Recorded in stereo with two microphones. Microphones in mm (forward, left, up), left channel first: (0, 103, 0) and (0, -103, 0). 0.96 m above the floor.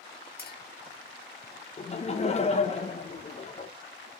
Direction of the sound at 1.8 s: 35° left (ahead or behind).